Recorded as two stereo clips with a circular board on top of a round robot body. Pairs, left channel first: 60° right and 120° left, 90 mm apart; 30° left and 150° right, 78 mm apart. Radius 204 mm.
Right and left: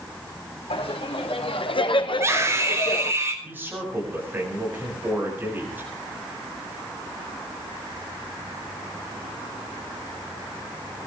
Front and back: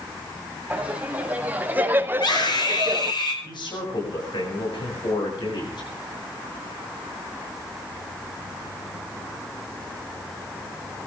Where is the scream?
60° left, 5.5 m.